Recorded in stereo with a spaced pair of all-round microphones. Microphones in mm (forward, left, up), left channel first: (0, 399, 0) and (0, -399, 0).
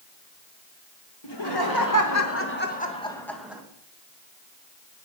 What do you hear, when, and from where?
1.2 s laughter: 35° left (ahead or behind), 2.5 m; by 3.6 s 5° right (ahead or behind), 2.5 m